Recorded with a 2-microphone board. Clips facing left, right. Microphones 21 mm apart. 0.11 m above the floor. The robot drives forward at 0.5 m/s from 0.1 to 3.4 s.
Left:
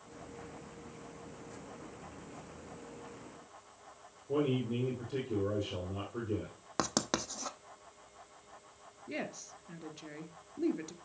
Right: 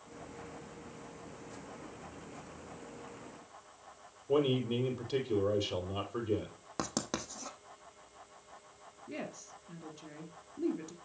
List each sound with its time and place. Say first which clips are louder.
4.3 s a man speaking: right 2 dB; 50° right (ahead or behind), 3.5 m
6.8 s writing: left 4 dB; 25° left (ahead or behind), 0.9 m
9.1 s a woman speaking: left 2 dB; 25° left (ahead or behind), 1.6 m